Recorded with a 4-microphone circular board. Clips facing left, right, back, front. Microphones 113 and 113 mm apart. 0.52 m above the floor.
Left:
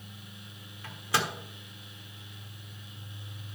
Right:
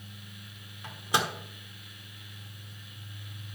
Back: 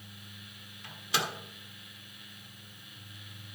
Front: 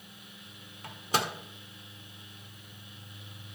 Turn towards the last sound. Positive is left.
turn(degrees=-25)